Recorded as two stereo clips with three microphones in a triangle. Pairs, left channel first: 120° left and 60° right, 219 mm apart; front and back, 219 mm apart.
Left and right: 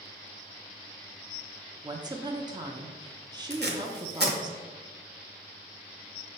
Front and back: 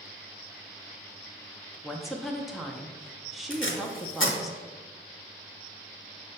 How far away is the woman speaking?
About 0.5 m.